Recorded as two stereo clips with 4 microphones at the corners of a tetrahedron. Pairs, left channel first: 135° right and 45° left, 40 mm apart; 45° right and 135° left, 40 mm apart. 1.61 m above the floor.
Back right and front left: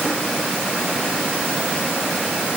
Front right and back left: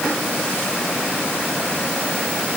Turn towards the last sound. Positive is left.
No sound to turn to.